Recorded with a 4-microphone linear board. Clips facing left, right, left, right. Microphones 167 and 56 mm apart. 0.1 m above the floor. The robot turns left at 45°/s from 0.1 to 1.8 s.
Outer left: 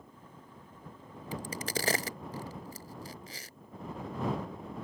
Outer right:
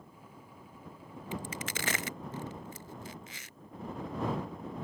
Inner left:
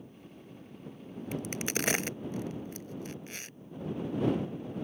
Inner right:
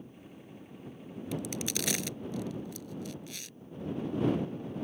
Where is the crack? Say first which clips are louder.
Outer left 3 dB, inner left 1 dB; 40° left (ahead or behind).